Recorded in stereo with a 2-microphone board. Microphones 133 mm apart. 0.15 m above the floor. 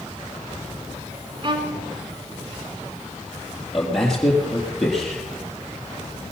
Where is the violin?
40° right (ahead or behind), 1.2 m.